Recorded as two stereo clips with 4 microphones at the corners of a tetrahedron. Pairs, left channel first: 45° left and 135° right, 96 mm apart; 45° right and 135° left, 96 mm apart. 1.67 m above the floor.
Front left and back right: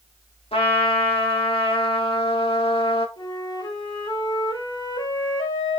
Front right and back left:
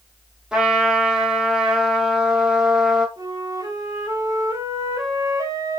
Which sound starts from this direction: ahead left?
A trumpet, at 0.5 s.